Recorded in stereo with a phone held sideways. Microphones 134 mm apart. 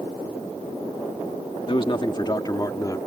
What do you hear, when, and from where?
1.7 s a man speaking: 40° left (ahead or behind); by 3.0 s 25° left (ahead or behind)